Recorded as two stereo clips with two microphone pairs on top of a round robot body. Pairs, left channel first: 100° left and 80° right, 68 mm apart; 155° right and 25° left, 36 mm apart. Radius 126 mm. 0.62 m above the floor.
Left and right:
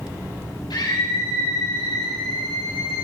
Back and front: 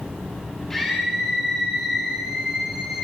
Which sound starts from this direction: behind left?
A scream, at 0.7 s.